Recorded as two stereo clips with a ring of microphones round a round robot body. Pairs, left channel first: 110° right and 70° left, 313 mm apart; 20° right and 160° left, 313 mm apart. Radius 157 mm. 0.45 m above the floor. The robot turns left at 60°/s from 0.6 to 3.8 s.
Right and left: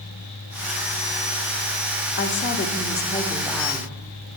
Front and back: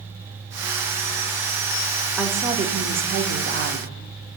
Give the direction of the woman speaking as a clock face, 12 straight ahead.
4 o'clock.